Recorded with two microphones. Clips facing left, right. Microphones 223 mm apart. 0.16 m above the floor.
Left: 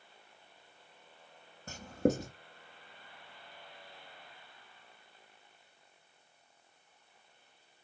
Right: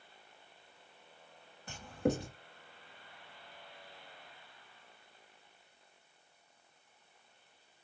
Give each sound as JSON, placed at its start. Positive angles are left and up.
{"t": 1.7, "sound": "writing", "side_deg": 45, "distance_m": 1.1}